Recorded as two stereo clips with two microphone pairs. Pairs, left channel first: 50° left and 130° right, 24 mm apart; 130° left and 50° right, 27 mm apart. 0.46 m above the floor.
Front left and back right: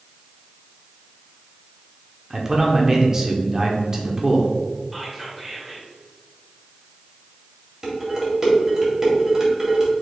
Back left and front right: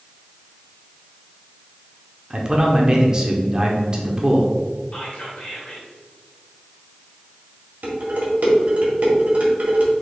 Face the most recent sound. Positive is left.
turn(degrees=-70)